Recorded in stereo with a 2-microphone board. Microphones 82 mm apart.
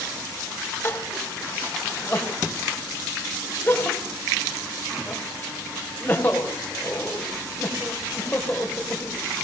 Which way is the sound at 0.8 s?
25° left (ahead or behind).